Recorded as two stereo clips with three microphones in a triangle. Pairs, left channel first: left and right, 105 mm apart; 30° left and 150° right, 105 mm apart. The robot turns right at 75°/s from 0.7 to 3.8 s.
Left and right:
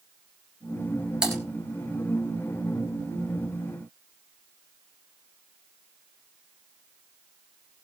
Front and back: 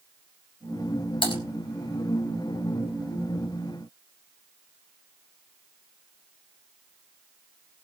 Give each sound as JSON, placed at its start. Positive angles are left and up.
{"t": 1.2, "sound": "typing on a keyboard", "azimuth_deg": -5, "distance_m": 2.5}